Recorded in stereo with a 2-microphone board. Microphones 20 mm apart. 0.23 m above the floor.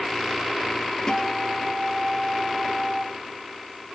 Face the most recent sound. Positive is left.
turn(degrees=35)  # may be behind; listen again after turning